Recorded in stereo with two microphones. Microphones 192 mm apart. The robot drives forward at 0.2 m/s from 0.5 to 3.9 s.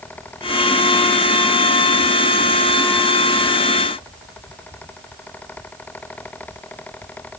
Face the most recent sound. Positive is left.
No sound to turn to.